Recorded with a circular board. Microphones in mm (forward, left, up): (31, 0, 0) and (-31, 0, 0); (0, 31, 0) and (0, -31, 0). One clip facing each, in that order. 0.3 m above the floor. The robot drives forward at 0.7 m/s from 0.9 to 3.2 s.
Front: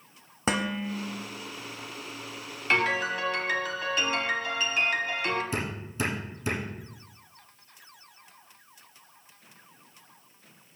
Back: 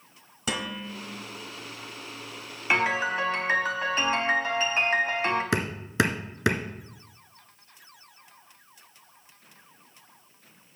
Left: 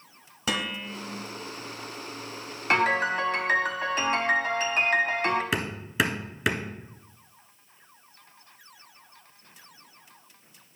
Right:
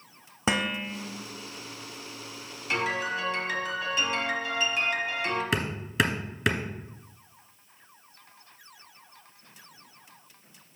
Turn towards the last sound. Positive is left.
turn(degrees=180)